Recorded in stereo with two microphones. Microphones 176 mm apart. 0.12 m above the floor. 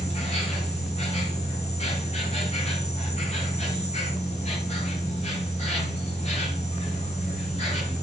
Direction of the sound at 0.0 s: 40° left (ahead or behind).